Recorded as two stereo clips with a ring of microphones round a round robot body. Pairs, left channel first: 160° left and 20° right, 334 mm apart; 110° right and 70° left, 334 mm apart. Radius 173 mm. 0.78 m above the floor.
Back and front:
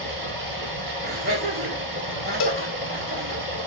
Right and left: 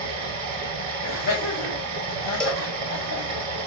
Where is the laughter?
85° right, 3 m.